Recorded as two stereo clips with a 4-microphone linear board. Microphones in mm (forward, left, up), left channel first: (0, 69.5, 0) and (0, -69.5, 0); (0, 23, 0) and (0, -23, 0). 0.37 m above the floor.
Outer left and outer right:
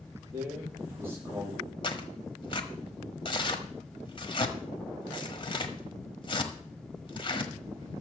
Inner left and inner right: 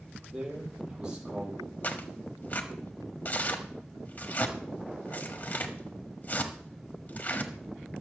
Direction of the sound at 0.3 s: 15° right (ahead or behind).